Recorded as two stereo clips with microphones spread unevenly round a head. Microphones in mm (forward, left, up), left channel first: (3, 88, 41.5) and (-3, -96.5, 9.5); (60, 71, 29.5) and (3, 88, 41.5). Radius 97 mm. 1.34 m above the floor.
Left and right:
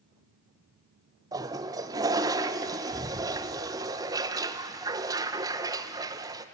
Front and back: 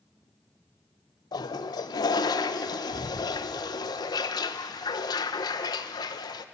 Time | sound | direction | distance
1.3 | a toilet flushing | 15° right | 0.6 m